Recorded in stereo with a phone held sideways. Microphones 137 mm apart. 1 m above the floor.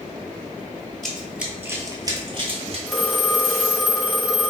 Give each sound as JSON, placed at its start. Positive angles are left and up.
{"t": 1.0, "sound": "running footsteps", "side_deg": 5, "distance_m": 1.1}
{"t": 2.9, "sound": "a phone ringing", "side_deg": 0, "distance_m": 0.8}